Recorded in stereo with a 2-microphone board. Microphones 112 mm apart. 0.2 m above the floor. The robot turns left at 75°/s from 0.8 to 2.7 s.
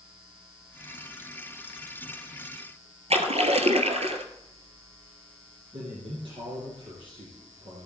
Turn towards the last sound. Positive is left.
turn(degrees=-50)  # may be behind; listen again after turning